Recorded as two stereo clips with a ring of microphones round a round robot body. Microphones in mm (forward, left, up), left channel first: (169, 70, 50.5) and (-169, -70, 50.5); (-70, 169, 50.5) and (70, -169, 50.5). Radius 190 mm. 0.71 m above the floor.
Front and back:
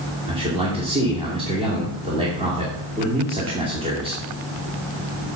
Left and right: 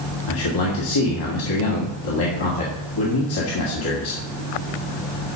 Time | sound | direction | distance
0.3 | a man speaking | 130° left | 2.0 m